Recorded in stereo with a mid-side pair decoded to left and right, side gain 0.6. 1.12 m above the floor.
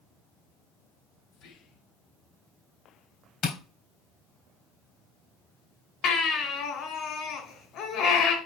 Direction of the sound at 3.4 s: 50° left.